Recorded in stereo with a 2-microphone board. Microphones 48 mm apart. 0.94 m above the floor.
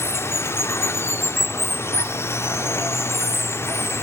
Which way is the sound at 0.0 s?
60° left (ahead or behind).